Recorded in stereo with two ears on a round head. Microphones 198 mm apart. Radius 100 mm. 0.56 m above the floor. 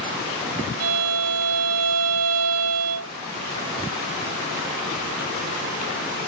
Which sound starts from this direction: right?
A violin, at 0.8 s.